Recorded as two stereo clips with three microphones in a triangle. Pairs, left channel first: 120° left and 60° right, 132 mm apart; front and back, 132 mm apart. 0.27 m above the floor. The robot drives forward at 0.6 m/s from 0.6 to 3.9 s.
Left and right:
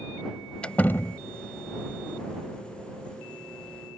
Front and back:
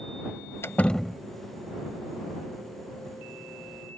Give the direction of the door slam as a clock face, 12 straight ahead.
10 o'clock.